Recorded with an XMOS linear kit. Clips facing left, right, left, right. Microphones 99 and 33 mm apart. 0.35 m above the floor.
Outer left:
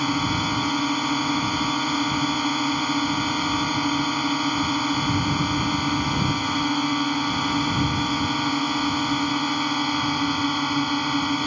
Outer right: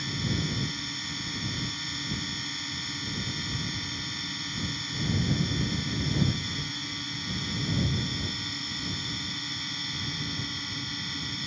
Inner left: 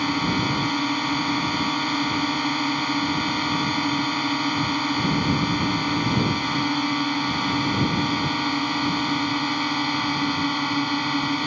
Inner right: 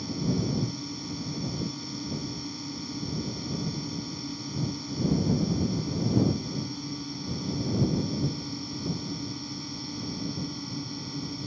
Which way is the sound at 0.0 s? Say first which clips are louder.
Outer left 10 dB, inner left 8 dB; 60° left (ahead or behind).